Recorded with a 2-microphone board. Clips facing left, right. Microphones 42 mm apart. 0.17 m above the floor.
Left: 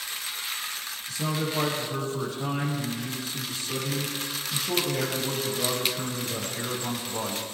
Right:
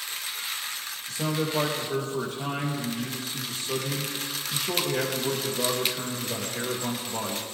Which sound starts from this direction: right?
A man speaking, at 1.1 s.